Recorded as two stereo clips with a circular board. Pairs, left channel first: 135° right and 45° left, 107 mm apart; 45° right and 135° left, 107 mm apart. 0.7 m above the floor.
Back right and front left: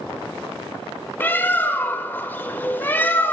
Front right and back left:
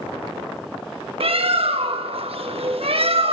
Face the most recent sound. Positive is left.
turn(degrees=155)